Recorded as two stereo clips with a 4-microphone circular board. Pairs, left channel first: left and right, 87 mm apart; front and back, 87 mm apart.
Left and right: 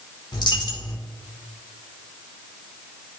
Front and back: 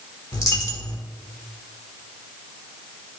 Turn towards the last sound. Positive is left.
turn(degrees=50)